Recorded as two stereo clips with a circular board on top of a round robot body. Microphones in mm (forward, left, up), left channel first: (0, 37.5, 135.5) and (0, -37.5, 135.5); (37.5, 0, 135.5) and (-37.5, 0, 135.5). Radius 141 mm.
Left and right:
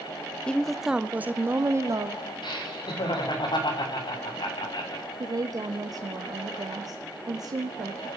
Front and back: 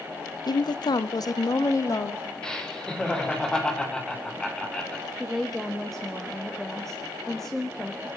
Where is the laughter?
80° left, 3.5 m.